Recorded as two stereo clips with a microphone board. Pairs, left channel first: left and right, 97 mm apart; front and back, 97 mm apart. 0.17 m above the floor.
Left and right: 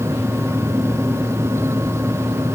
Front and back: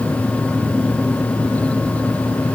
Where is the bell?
No bell in this recording.